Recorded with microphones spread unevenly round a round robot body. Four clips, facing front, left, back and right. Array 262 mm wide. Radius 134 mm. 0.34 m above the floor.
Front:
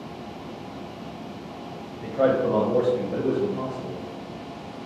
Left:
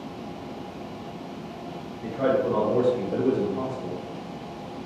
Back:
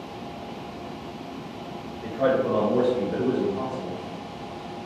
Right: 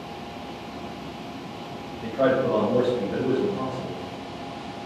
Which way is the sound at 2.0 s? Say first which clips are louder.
Right 2 dB, front 1 dB; 25° right.